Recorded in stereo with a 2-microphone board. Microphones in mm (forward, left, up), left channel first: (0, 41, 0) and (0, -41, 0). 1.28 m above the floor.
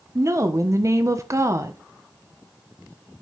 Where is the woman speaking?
35° right (ahead or behind), 1.1 m.